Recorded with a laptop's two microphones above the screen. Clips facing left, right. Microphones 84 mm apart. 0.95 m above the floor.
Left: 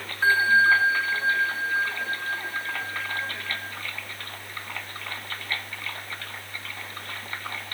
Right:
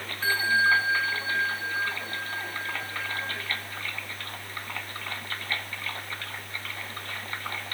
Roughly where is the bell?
Left.